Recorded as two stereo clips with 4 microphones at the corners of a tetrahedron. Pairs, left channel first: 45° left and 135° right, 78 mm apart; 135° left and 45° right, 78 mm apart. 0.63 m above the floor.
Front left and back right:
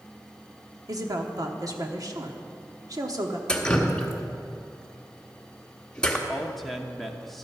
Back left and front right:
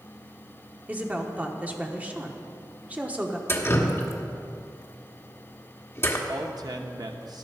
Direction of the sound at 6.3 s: 45° right.